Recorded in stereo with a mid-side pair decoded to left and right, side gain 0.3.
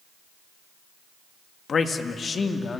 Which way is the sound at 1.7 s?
60° left.